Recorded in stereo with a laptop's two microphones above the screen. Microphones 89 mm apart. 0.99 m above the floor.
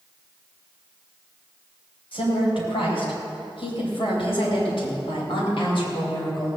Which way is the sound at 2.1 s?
80° left.